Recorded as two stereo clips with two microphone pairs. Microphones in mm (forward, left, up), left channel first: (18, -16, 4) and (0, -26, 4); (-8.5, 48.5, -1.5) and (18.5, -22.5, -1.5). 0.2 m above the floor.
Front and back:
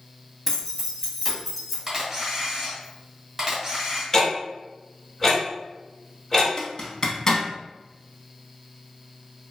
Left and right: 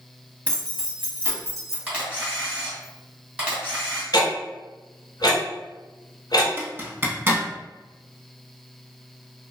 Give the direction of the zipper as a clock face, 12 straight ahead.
1 o'clock.